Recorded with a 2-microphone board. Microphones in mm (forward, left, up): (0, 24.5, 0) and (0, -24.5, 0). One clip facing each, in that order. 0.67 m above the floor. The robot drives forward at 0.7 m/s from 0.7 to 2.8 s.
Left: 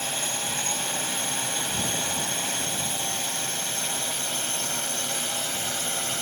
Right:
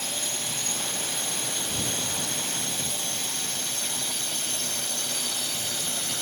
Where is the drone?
40° left (ahead or behind); by 6.2 s 35° left (ahead or behind).